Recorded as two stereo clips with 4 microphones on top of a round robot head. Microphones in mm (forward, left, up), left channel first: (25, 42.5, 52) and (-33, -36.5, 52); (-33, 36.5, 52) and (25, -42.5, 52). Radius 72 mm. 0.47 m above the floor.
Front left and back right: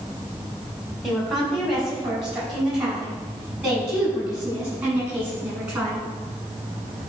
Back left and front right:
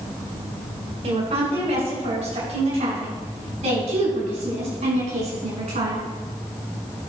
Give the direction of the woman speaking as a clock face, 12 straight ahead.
1 o'clock.